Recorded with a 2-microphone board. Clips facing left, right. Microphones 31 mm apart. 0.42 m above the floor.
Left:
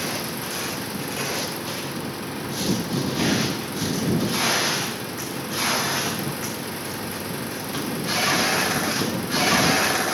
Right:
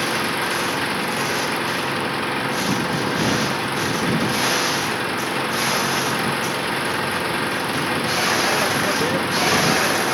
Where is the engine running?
50° right (ahead or behind).